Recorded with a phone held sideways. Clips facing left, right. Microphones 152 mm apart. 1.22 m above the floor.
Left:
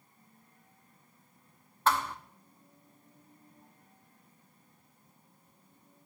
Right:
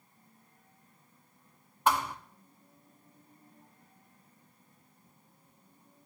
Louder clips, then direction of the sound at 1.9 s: Right 1 dB; 15° right (ahead or behind).